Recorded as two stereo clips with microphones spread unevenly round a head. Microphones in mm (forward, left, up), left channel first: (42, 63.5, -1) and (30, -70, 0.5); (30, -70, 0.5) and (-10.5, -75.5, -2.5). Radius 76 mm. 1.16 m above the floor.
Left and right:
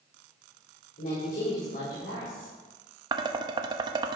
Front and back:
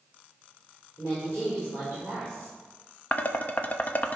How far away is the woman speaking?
About 4 m.